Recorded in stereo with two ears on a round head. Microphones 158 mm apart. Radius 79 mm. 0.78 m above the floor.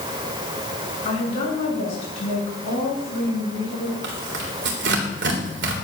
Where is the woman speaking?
35° left (ahead or behind), 8 m.